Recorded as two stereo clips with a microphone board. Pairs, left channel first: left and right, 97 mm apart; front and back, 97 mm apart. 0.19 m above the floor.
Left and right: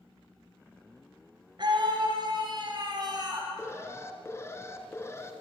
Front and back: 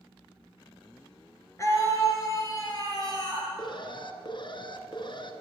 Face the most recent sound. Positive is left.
turn(degrees=30)